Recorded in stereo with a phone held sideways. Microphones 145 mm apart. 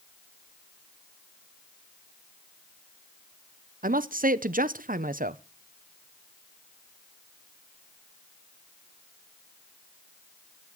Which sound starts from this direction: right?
A man speaking, at 3.8 s.